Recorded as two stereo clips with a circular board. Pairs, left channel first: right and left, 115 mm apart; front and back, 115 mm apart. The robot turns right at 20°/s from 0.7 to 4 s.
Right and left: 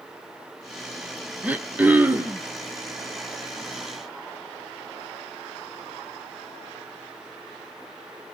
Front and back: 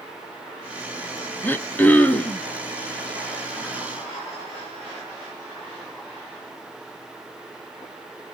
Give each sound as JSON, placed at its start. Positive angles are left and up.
{"t": 1.4, "sound": "throat clearing", "azimuth_deg": 35, "distance_m": 0.6}